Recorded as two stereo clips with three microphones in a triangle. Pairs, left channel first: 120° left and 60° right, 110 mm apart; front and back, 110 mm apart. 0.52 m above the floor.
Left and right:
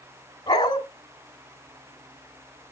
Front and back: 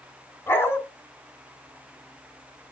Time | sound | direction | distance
0.5 | a dog barking | 70° left | 2.0 m